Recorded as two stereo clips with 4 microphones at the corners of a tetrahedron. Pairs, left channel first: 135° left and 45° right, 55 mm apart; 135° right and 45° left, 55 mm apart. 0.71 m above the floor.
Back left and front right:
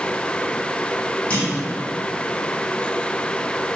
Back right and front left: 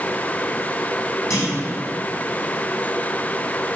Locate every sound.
1.3 s a clunk: 160° right, 2.5 m